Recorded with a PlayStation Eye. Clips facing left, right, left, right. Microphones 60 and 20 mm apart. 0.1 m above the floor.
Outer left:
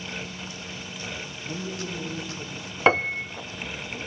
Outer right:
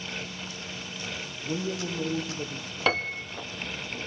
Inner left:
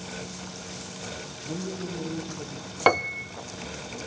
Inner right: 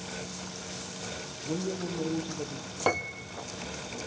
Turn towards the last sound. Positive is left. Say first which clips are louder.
# outer left 6 dB, inner left 7 dB
turn(degrees=30)  # may be behind; listen again after turning